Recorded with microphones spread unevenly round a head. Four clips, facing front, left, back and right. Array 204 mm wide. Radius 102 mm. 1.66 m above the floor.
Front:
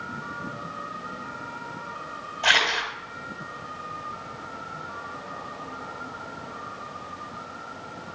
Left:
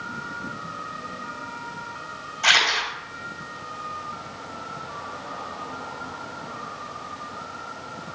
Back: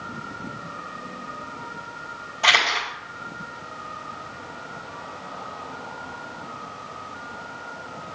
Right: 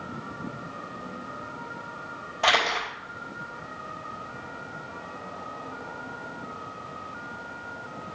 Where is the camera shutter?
100° right, 4.5 m.